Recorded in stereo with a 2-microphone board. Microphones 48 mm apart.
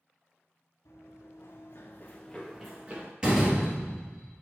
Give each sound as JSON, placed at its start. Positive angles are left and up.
{"t": 0.8, "sound": "running footsteps", "side_deg": 80, "distance_m": 1.4}
{"t": 3.2, "sound": "a door slam", "side_deg": -20, "distance_m": 1.4}